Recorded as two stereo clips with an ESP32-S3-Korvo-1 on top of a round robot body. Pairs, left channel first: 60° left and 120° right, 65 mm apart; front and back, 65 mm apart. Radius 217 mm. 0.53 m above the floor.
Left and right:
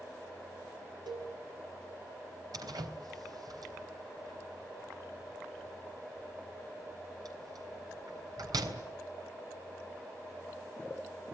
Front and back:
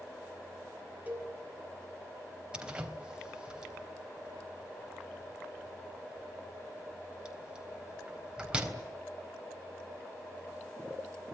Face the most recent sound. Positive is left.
turn(degrees=-105)